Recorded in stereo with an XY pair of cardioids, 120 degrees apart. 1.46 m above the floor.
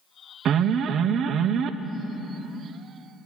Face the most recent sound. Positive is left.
turn(degrees=-55)